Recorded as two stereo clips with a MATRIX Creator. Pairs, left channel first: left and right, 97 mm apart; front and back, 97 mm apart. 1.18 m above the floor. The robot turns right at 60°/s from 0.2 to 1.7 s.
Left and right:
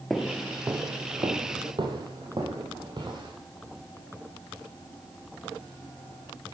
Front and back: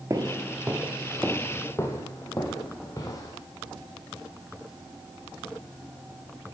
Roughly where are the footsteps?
Behind.